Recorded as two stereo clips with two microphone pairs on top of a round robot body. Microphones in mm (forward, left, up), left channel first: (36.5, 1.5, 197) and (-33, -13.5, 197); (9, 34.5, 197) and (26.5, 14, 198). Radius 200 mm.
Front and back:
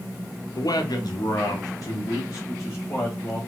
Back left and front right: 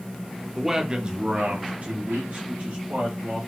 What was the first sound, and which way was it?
A man speaking, 35° left.